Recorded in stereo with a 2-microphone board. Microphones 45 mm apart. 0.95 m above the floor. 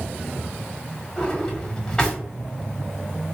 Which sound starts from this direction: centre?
A drawer, at 1.2 s.